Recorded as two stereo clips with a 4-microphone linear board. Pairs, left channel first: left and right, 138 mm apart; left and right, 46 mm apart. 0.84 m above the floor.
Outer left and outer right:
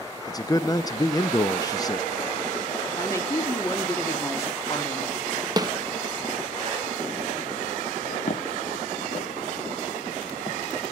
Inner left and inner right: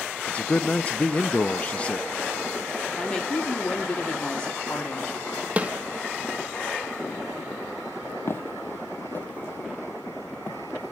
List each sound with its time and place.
0.3 s a man speaking: 25° left (ahead or behind), 0.5 m
2.9 s a woman speaking: 20° left (ahead or behind), 1.8 m
5.6 s a snare drum: 25° right (ahead or behind), 0.8 m
8.3 s footsteps: 55° left (ahead or behind), 1.3 m; by 10.6 s 25° left (ahead or behind), 3.5 m